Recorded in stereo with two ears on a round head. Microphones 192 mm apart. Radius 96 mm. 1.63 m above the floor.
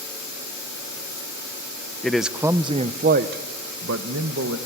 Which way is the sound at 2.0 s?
5° left (ahead or behind).